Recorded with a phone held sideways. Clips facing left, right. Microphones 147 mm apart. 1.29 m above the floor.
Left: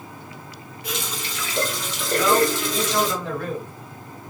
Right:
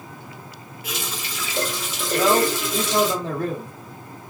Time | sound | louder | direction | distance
0.8 | a running tap | left 1 dB | 5° right (ahead or behind) | 1.1 m
2.1 | a man speaking | even | 30° right (ahead or behind) | 0.8 m